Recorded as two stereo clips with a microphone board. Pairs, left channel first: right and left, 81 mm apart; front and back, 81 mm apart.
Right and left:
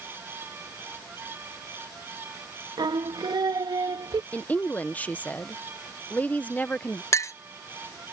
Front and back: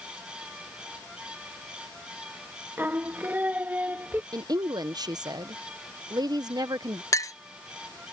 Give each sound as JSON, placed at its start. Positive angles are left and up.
{"t": 2.8, "sound": "singing", "azimuth_deg": 115}
{"t": 4.3, "sound": "a woman speaking", "azimuth_deg": -155}
{"t": 7.1, "sound": "a clink", "azimuth_deg": -45}